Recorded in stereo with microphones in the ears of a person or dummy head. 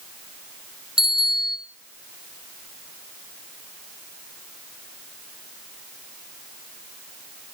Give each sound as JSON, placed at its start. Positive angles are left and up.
{"t": 1.0, "sound": "a bicycle bell", "side_deg": -5, "distance_m": 5.0}